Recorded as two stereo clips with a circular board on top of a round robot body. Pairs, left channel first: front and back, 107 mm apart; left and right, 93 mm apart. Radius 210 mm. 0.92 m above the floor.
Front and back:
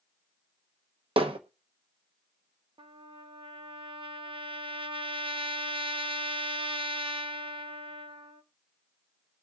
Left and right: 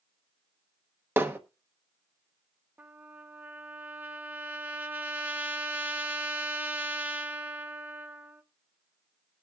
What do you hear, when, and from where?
1.2 s hammering: 150° right, 1.2 m
2.8 s a trumpet: 155° right, 1.0 m